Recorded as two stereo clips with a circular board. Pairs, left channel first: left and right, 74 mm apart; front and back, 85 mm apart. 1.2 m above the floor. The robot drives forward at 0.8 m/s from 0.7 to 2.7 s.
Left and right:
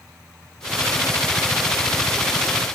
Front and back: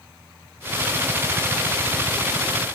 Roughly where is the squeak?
I don't hear a squeak.